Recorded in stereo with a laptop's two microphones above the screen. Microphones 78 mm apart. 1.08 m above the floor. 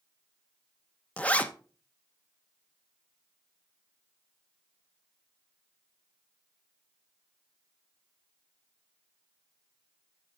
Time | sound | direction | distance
1.2 | a zipper | 20° left (ahead or behind) | 0.9 m